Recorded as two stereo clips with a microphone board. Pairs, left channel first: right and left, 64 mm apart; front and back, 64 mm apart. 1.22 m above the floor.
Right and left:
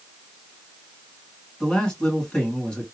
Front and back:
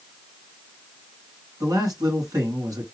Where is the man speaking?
170° right, 3 m.